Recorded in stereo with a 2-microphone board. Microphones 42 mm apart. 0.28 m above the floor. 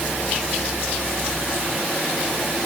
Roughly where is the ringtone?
I don't hear a ringtone.